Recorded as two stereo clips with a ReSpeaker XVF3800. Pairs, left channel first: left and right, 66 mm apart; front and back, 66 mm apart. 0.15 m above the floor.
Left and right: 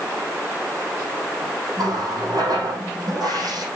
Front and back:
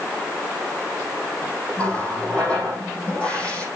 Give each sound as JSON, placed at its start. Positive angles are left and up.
{"t": 1.8, "sound": "a running tap", "azimuth_deg": -75, "distance_m": 4.5}